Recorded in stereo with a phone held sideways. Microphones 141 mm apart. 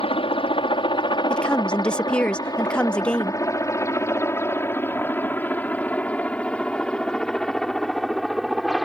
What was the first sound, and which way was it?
A helicopter, 40° left (ahead or behind).